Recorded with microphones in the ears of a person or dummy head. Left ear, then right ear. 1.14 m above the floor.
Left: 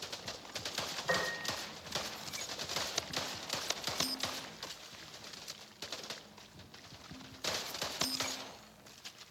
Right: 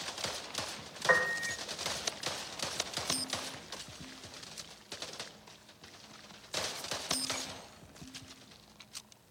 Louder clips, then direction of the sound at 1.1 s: Right 7 dB; 70° right (ahead or behind).